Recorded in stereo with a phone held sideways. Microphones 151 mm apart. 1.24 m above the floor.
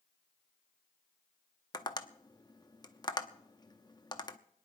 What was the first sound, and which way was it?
Tapping, 30° left (ahead or behind).